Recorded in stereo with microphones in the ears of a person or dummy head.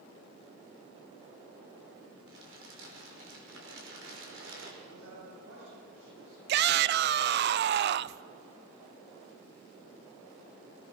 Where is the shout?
55° right (ahead or behind), 0.5 m.